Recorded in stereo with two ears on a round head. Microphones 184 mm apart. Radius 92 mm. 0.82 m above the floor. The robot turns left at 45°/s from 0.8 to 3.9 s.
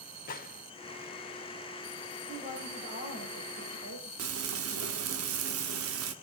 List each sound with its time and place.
0.3 s a gunshot: 45° left (ahead or behind), 1.0 m
2.3 s a woman speaking: 20° right, 4.5 m; by 4.1 s 95° right, 4.5 m
4.2 s frying: 80° right, 1.2 m